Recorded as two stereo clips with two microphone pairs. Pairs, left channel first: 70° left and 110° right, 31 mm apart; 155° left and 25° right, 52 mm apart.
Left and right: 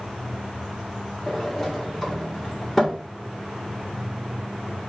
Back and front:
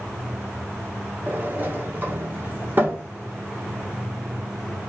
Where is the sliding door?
Straight ahead, 1.6 m.